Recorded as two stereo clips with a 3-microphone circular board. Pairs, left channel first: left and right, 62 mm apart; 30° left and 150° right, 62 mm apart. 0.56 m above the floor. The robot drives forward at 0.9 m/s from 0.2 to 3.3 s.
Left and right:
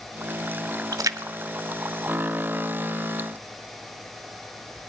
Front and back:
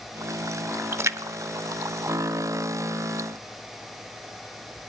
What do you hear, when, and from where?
0.9 s a splash: 95° right, 0.6 m; by 2.9 s 165° right, 1.9 m